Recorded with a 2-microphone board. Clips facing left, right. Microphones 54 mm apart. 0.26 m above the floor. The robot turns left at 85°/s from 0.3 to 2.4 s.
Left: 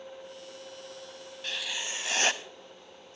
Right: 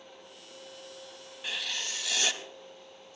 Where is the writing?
170° right, 0.6 m; by 3.2 s 110° left, 0.6 m.